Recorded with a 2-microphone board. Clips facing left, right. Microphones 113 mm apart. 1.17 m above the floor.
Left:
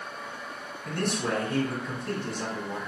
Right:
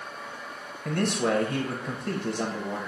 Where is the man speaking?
75° right (ahead or behind), 1.1 m.